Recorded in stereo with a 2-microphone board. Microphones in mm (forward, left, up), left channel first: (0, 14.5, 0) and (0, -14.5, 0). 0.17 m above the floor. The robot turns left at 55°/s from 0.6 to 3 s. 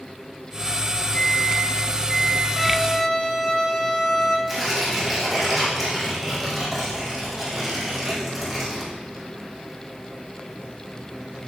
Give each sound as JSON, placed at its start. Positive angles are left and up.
{"t": 1.1, "sound": "a microwave", "azimuth_deg": 55, "distance_m": 1.9}
{"t": 2.6, "sound": "a violin", "side_deg": 0, "distance_m": 1.1}
{"t": 4.5, "sound": "tearing paper", "side_deg": -5, "distance_m": 3.0}